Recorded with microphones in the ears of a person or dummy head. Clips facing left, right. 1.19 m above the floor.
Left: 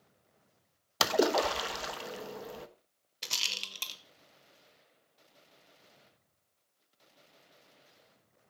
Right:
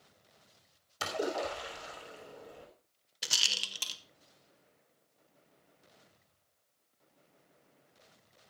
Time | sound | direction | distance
1.0 | a splash | 85° left | 1.1 m
3.2 | a rattle | centre (ahead or behind) | 0.7 m